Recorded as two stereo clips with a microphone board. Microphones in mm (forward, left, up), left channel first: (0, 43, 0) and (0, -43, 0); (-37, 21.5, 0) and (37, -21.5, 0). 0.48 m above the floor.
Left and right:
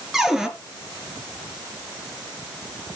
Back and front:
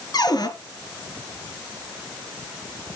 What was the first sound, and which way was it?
A cupboard door, 175° right.